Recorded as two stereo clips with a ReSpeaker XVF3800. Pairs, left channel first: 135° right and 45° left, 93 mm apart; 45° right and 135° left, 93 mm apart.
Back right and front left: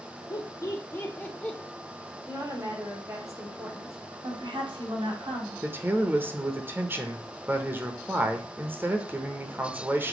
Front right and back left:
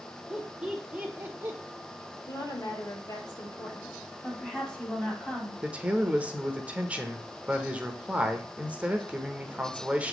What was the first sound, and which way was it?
Laughter, 145° right.